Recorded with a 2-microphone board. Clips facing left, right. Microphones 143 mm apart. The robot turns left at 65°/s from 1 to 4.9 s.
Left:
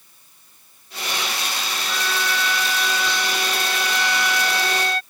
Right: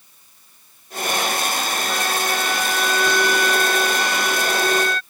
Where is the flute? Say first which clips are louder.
Even; 115° right; by 5.0 s 45° left.